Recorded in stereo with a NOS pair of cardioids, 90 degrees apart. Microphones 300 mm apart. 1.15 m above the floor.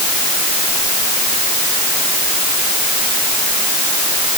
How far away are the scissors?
No scissors in this recording.